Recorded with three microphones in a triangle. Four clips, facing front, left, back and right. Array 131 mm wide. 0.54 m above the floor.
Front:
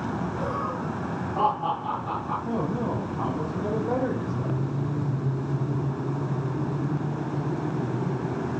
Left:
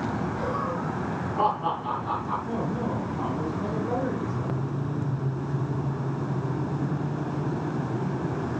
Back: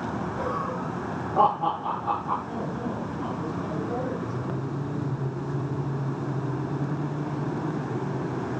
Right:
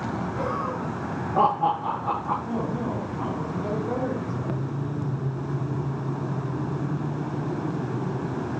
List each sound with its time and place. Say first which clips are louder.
0.4 s laughter: right 1 dB, even; 120° right, 9 m; by 2.3 s 115° right, 10 m
2.4 s a man speaking: right 1 dB, front 4 dB; straight ahead, 4 m